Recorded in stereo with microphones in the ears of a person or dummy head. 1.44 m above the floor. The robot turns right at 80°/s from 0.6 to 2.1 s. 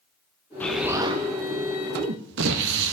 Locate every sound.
0.6 s an explosion: 170° left, 0.6 m; by 2.9 s 70° right, 0.6 m